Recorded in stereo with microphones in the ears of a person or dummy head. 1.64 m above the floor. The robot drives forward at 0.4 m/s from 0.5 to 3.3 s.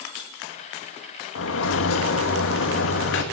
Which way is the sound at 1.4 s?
80° left.